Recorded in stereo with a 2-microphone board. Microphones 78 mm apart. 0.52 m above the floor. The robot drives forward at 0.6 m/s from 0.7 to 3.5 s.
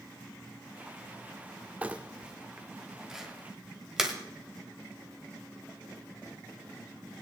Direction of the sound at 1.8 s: 20° right (ahead or behind).